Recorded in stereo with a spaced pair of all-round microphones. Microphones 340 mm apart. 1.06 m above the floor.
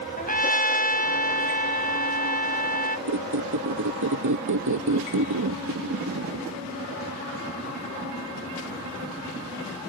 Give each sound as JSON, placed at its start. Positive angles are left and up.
{"t": 0.2, "sound": "a trumpet", "side_deg": 25}
{"t": 3.1, "sound": "a squeak", "side_deg": -60}